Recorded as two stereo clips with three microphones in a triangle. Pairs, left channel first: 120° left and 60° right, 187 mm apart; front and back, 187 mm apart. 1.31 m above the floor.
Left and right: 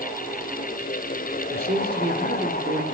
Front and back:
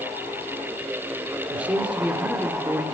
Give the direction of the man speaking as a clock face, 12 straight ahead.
3 o'clock.